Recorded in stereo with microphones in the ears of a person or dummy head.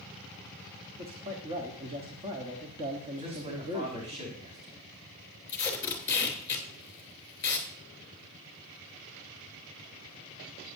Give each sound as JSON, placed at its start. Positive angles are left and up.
{"t": 1.0, "sound": "a man speaking", "side_deg": -35, "distance_m": 1.2}
{"t": 3.2, "sound": "a man speaking", "side_deg": -40, "distance_m": 5.0}
{"t": 5.5, "sound": "tape being pulled", "side_deg": 15, "distance_m": 3.0}